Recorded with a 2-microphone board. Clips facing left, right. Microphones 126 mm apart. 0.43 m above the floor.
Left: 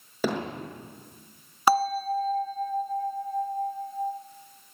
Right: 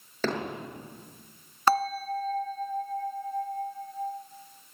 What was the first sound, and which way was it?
Hammering, 10° left (ahead or behind).